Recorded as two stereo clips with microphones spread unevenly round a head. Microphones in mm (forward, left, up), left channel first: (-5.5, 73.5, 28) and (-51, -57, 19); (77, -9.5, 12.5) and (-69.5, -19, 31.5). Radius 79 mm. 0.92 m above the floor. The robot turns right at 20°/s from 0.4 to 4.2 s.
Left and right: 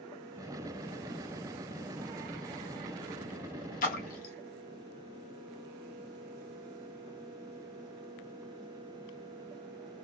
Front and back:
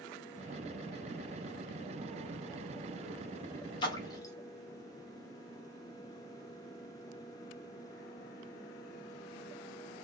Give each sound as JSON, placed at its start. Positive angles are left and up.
{"t": 3.8, "sound": "a splash", "azimuth_deg": 55, "distance_m": 1.2}